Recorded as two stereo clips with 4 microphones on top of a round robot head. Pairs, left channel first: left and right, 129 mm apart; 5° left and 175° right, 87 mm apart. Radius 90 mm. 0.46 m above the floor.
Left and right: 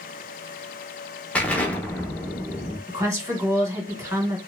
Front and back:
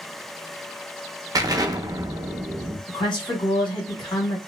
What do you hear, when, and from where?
1.4 s an explosion: 165° left, 0.6 m
2.9 s a woman speaking: 25° right, 1.5 m